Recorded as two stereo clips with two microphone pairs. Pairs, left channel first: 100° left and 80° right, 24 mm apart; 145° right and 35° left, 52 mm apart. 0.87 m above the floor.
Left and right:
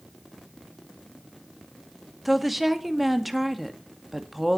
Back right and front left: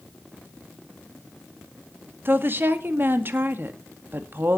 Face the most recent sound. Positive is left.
turn(degrees=5)